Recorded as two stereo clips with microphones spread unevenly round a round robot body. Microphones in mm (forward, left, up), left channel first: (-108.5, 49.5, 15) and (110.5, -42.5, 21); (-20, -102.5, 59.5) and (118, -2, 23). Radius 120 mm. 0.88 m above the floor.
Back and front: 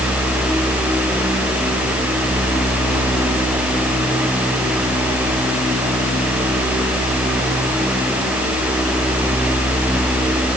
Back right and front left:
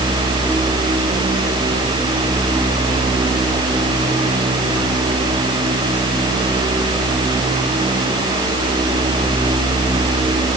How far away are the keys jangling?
No keys jangling in this recording.